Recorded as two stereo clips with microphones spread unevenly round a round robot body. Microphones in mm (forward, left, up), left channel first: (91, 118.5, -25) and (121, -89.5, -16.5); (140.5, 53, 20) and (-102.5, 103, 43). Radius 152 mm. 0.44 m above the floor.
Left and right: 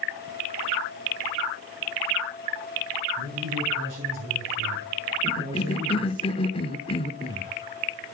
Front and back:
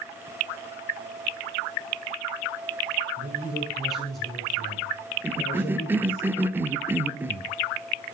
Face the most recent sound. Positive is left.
turn(degrees=85)